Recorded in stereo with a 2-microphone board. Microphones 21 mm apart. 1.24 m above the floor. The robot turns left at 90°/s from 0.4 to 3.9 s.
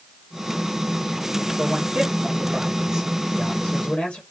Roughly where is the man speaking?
Ahead right.